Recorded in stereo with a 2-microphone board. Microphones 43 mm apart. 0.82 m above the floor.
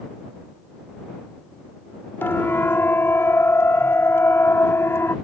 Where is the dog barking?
I don't hear a dog barking.